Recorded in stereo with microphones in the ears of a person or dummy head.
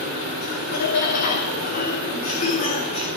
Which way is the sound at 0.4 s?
55° left (ahead or behind).